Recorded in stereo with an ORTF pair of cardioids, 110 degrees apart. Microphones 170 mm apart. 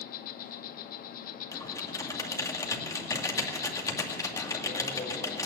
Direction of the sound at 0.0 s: 60° left.